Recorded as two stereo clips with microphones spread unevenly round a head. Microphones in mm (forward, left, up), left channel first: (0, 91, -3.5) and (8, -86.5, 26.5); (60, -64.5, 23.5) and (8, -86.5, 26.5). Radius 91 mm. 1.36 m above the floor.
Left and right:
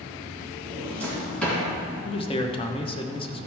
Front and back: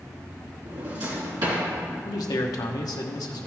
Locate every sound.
0.7 s a drawer: straight behind, 3.5 m
2.0 s a man speaking: 30° left, 1.1 m